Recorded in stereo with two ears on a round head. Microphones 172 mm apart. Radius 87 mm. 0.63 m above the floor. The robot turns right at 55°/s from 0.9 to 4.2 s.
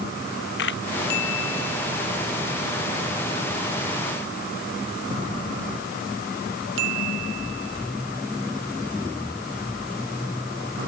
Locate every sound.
0.6 s a camera shutter: 70° left (ahead or behind)